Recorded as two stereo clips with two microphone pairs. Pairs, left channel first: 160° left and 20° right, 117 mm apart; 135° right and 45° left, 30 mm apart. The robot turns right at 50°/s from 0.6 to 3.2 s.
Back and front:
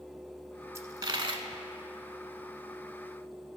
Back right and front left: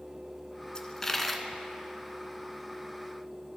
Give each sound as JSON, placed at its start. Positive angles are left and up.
{"t": 0.8, "sound": "a dropped coin", "azimuth_deg": -80, "distance_m": 0.5}